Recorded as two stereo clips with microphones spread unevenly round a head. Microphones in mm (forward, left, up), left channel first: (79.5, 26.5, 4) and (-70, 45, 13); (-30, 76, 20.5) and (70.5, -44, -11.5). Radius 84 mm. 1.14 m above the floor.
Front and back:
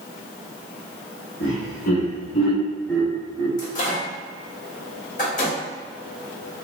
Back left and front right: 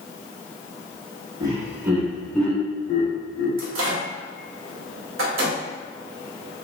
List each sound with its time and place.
1.4 s laughter: 5° left, 1.5 m; by 3.5 s 110° left, 1.1 m
3.6 s a microwave: 60° right, 1.1 m